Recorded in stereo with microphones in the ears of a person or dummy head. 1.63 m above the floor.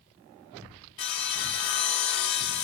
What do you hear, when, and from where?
1.0 s sawing: 25° left (ahead or behind), 0.5 m